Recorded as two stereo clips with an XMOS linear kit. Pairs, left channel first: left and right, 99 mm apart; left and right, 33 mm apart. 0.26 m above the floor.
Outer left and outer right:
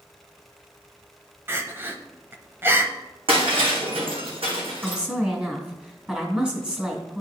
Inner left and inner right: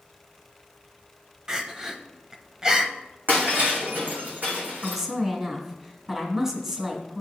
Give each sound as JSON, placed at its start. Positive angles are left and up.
{"t": 1.5, "sound": "crying", "side_deg": -25, "distance_m": 0.8}
{"t": 3.3, "sound": "breaking glass", "side_deg": -65, "distance_m": 3.0}
{"t": 4.8, "sound": "a woman speaking", "side_deg": -10, "distance_m": 2.5}